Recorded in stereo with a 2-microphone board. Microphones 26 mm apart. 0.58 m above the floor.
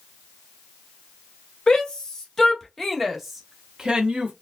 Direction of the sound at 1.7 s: 25° left (ahead or behind).